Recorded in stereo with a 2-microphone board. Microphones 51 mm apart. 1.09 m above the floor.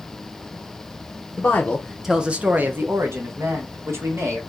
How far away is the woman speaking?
About 0.6 m.